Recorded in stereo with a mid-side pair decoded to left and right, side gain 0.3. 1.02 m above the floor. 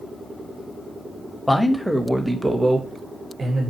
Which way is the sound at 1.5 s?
10° left.